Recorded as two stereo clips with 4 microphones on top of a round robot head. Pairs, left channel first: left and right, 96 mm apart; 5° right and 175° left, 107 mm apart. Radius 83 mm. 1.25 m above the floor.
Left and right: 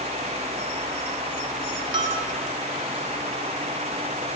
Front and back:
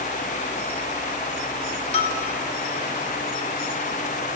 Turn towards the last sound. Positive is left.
turn(degrees=-40)